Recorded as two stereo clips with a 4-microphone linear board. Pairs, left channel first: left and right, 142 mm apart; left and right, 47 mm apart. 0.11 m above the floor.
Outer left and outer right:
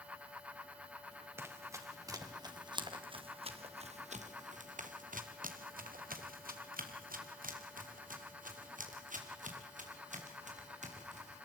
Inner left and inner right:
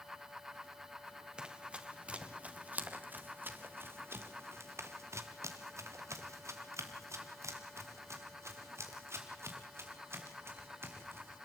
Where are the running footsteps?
20° right (ahead or behind), 3 m; by 11.4 s 55° right (ahead or behind), 5 m.